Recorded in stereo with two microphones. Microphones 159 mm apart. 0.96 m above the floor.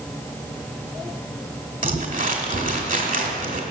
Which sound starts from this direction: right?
Crumpling, at 1.8 s.